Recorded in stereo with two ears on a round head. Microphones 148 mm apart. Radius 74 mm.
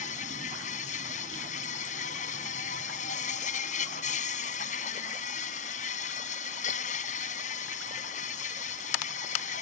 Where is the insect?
50° left (ahead or behind).